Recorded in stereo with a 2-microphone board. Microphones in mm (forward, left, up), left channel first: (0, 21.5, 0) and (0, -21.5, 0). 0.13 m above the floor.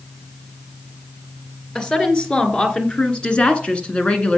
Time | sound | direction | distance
1.8 | a woman speaking | 25° left (ahead or behind) | 2.5 m